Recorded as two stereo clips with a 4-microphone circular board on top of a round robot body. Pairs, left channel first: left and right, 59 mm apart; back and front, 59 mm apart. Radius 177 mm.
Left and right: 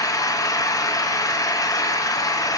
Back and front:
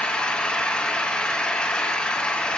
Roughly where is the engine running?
Left.